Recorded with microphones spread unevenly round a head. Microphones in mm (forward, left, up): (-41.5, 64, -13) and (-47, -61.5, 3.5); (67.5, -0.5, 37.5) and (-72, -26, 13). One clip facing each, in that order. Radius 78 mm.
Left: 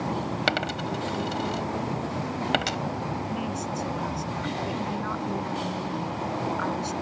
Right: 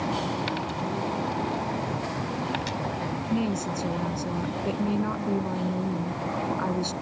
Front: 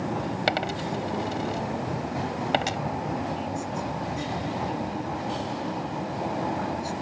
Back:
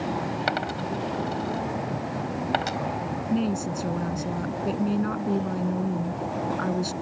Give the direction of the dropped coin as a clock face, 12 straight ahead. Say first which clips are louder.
Left 1 dB, front 1 dB; 10 o'clock.